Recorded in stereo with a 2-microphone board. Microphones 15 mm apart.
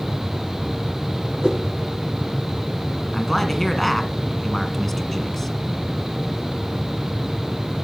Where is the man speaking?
15° left (ahead or behind), 1.9 m.